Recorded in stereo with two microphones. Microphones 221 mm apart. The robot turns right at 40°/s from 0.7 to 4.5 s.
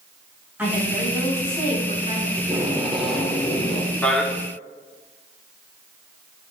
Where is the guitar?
No guitar in this recording.